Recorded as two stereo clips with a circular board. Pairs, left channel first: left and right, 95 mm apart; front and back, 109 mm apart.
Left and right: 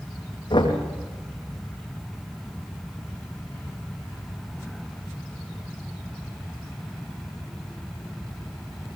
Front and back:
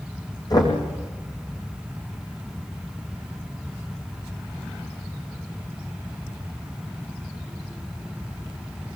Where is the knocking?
50° left, 6.5 m.